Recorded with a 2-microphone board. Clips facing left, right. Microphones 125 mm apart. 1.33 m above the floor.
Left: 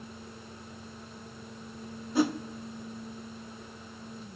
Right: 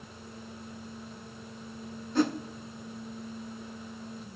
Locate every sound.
2.1 s a whoosh: 10° left (ahead or behind), 0.7 m